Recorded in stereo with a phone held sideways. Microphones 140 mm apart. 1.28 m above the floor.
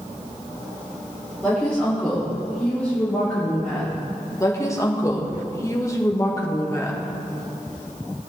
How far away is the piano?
No piano in this recording.